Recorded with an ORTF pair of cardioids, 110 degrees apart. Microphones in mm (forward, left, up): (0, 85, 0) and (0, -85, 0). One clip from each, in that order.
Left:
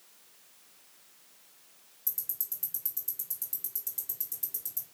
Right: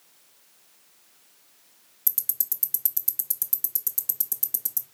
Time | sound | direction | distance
2.1 | ticking | 50° right | 0.7 m